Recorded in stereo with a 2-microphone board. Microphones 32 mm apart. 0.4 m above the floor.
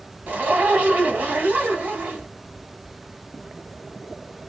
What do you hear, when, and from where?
0.3 s a zipper: 65° right (ahead or behind), 2.0 m